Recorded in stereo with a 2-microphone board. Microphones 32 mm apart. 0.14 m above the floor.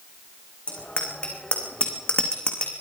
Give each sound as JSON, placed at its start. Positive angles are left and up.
{"t": 0.7, "sound": "a bicycle bell", "side_deg": 35, "distance_m": 7.5}